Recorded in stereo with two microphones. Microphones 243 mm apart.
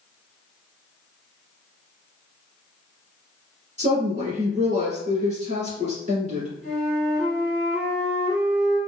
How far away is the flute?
About 1.1 m.